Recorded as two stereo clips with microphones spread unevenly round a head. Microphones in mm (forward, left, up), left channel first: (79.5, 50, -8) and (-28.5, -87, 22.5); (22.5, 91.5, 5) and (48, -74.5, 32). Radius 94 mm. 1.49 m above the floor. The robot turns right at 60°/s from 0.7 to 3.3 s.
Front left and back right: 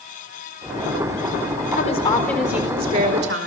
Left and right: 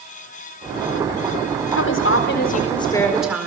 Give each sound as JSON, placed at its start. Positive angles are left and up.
{"t": 1.7, "sound": "a woman speaking", "azimuth_deg": 100, "distance_m": 4.5}